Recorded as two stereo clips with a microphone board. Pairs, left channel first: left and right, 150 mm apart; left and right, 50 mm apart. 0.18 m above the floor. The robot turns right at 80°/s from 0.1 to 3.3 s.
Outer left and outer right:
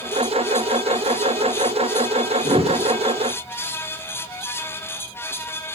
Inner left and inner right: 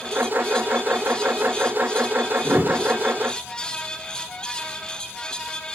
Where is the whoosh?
45° right, 1.0 m; by 2.8 s 15° right, 1.0 m.